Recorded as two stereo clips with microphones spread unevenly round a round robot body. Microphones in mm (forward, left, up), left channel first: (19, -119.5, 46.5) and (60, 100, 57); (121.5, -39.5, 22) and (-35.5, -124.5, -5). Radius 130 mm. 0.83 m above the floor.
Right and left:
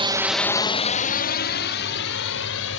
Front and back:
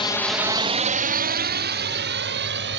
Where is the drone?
70° left; by 2.8 s 140° right.